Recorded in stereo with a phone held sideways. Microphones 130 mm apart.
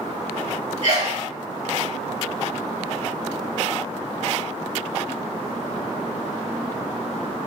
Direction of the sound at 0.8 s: 75° right (ahead or behind).